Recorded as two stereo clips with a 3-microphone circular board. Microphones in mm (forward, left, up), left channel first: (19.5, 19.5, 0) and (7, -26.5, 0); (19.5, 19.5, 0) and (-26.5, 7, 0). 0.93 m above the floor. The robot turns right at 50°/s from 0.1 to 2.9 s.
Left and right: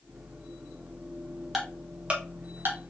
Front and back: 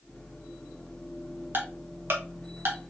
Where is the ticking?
170° left, 1.1 m; by 2.8 s 130° right, 1.1 m.